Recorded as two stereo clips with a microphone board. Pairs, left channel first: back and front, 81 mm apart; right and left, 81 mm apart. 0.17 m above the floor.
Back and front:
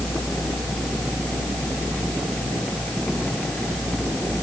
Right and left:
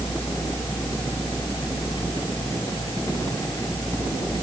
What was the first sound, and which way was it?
Only background noise.